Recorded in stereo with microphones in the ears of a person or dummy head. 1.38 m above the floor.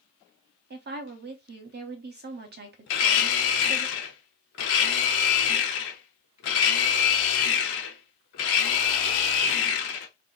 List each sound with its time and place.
0.7 s a woman speaking: 55° right (ahead or behind), 0.7 m
2.9 s a blender: 40° left (ahead or behind), 0.6 m